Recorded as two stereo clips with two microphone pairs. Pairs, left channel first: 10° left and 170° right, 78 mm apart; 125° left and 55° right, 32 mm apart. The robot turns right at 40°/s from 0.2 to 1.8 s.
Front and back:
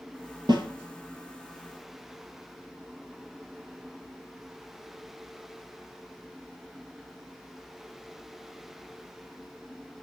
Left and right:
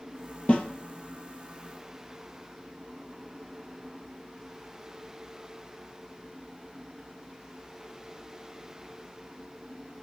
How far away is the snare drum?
About 1.5 m.